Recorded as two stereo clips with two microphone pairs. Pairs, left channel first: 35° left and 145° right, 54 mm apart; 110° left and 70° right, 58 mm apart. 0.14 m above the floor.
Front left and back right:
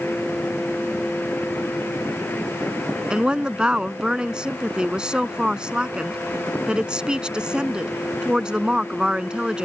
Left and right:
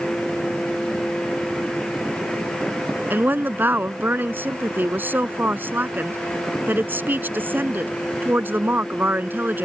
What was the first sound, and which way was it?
A woman speaking, 85° right.